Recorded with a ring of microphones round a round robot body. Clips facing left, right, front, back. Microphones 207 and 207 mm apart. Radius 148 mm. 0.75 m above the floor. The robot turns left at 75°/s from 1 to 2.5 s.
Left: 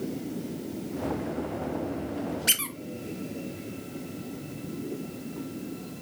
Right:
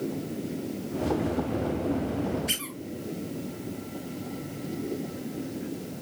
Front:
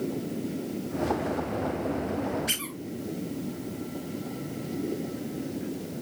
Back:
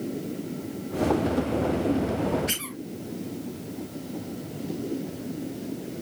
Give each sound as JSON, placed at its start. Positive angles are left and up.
{"t": 2.5, "sound": "a squeak", "azimuth_deg": 85, "distance_m": 1.7}